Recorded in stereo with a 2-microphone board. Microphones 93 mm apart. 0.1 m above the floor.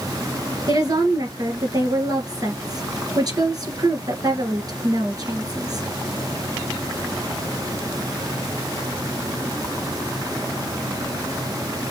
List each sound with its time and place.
0.7 s a woman speaking: 40° right (ahead or behind), 2 m